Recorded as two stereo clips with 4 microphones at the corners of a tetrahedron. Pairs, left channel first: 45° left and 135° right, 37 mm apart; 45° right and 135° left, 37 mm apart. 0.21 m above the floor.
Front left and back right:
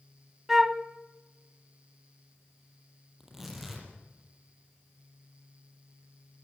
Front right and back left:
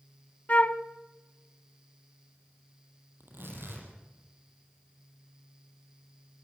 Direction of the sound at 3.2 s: 140° left.